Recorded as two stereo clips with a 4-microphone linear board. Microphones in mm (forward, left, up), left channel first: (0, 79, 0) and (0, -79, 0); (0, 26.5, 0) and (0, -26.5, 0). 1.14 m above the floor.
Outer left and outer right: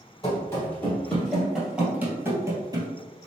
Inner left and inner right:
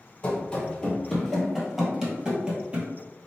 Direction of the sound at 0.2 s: 20° left (ahead or behind).